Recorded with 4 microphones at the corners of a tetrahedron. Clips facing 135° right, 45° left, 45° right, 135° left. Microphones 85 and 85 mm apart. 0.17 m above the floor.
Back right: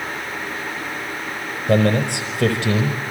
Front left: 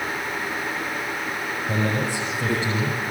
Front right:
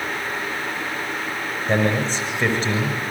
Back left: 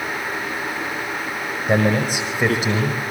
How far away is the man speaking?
About 5.5 m.